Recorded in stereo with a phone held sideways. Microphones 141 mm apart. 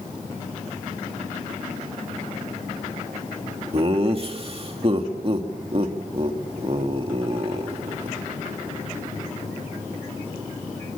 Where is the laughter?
40° right (ahead or behind), 2.5 m.